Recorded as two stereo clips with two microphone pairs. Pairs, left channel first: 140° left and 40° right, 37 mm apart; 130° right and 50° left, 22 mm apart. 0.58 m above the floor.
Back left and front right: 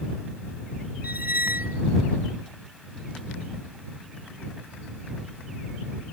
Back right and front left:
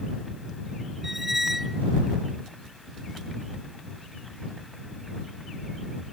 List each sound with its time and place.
1.0 s a squeak: 20° right